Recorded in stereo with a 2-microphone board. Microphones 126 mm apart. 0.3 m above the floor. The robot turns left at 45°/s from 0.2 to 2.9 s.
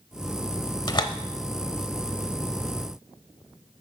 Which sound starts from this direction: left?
A door slam, at 0.9 s.